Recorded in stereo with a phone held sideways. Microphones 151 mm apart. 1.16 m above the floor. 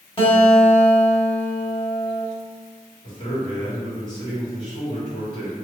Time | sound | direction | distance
0.2 | a guitar | 35° left (ahead or behind) | 1.1 m
3.0 | a man speaking | 55° left (ahead or behind) | 1.7 m